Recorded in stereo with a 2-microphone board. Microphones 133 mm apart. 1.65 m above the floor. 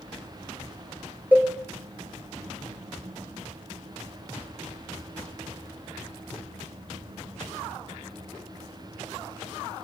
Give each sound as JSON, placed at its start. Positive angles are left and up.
{"t": 1.3, "sound": "a cowbell", "side_deg": -10, "distance_m": 3.5}